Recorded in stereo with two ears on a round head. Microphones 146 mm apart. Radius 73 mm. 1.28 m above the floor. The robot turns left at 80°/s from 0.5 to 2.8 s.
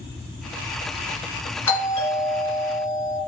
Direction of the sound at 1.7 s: 165° left.